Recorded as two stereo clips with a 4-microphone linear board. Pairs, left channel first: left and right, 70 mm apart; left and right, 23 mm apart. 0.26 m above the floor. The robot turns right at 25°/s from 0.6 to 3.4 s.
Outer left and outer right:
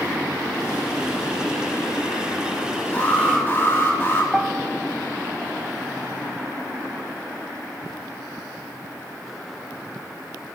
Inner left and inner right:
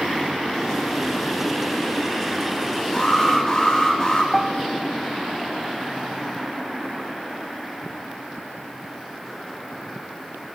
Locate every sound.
2.9 s an alarm: 20° left (ahead or behind), 3.5 m; by 4.2 s 30° left (ahead or behind), 3.5 m
4.3 s a piano: 10° right (ahead or behind), 0.8 m